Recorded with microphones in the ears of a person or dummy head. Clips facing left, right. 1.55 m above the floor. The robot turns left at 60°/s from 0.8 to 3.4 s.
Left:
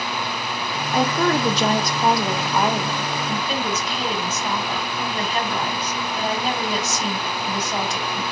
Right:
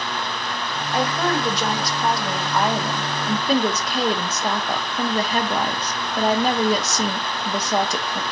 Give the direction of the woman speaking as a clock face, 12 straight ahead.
8 o'clock.